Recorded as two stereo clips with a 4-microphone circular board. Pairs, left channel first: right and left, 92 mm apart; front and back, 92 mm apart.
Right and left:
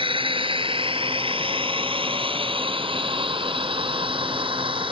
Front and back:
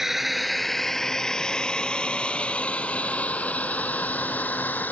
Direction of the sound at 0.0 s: 95° left.